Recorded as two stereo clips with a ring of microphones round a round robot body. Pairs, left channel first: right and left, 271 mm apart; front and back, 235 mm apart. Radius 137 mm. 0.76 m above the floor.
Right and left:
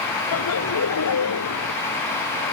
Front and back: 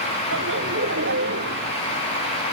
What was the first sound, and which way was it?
Laughter, 125° right.